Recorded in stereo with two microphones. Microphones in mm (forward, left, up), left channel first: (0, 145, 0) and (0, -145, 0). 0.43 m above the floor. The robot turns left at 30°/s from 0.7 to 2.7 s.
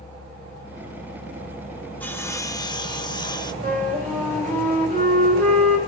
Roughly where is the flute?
Right.